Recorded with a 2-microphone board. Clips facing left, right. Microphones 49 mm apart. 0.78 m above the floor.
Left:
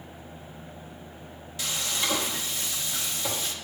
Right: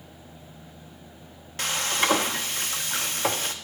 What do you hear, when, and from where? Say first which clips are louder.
1.6 s frying: right 5 dB; 60° right (ahead or behind), 0.8 m